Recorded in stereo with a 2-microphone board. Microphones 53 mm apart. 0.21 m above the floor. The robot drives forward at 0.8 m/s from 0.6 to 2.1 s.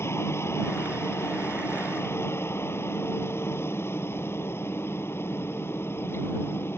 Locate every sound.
0.0 s a helicopter: 55° left (ahead or behind); by 6.8 s 50° left (ahead or behind)